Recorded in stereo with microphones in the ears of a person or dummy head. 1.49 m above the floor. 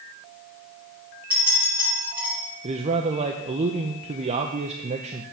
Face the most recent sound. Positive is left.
turn(degrees=-30)  # may be behind; listen again after turning